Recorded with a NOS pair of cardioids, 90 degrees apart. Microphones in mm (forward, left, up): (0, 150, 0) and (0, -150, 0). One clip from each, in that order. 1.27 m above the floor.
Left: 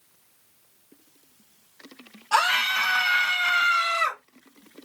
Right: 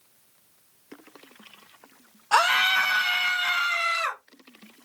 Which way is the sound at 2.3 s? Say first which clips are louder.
Right 1 dB; 15° right.